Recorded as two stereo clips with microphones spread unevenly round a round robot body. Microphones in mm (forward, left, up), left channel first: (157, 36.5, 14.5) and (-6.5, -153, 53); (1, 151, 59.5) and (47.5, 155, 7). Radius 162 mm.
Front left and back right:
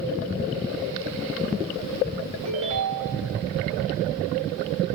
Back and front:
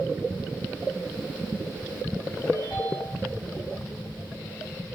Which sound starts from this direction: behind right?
A ringtone, at 2.5 s.